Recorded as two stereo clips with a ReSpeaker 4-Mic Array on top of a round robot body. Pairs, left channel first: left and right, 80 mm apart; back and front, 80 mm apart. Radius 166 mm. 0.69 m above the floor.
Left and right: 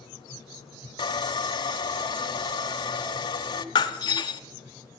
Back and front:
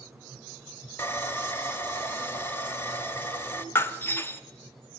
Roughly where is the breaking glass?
Behind left.